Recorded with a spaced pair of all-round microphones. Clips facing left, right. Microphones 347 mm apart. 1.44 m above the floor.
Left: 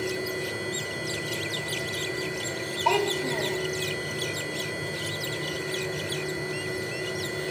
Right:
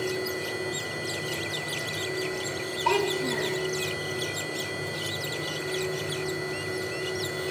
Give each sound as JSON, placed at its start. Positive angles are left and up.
{"t": 0.0, "sound": "a machine running", "side_deg": -5, "distance_m": 9.0}
{"t": 2.9, "sound": "a child speaking", "side_deg": -20, "distance_m": 2.0}